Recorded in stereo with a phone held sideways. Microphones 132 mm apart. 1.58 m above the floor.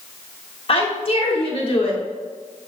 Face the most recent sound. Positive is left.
turn(degrees=45)  # may be behind; listen again after turning